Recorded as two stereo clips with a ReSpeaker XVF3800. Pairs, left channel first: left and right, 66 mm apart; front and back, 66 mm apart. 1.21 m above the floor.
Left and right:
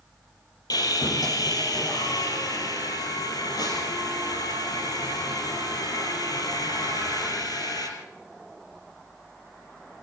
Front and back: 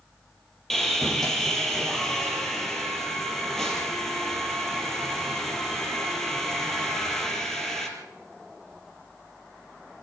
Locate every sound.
0.7 s sawing: 85° left, 4.5 m